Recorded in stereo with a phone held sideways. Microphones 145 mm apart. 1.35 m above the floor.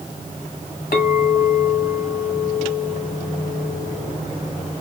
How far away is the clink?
About 1.4 m.